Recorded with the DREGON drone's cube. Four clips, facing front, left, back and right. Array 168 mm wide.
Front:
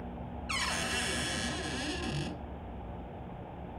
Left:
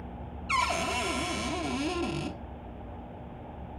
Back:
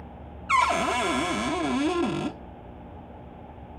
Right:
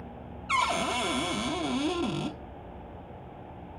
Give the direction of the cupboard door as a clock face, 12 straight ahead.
6 o'clock.